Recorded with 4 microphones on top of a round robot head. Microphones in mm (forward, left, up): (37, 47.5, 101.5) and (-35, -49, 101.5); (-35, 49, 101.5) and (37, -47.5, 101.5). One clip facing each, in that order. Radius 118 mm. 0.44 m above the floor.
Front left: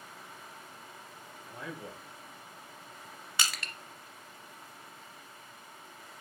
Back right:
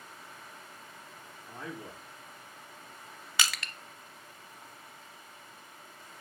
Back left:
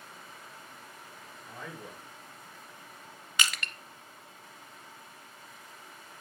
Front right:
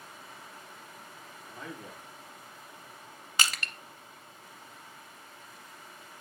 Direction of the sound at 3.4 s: 110° right.